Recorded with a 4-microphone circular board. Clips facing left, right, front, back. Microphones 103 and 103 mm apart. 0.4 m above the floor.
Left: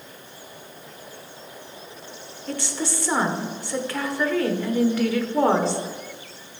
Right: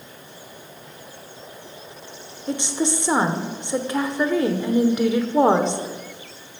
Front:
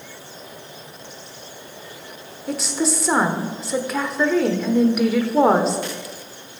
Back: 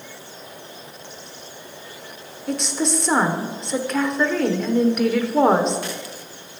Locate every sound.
2.5 s a woman speaking: 80° right, 1.0 m